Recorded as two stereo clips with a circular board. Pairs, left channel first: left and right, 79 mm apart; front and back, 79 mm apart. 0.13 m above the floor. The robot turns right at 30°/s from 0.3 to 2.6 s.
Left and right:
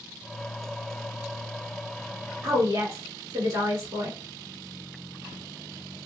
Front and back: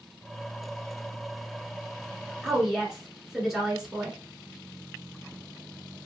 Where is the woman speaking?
105° right, 1.4 m; by 4.2 s 100° right, 1.4 m.